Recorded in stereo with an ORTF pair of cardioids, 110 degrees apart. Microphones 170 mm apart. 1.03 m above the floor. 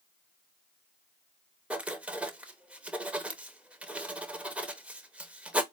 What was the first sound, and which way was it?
Writing, 5° right.